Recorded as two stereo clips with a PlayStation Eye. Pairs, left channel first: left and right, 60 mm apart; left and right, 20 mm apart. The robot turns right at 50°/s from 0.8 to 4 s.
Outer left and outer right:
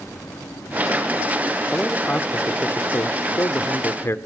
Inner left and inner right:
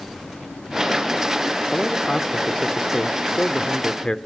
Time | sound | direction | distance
1.7 | a man speaking | 5° left | 1.1 m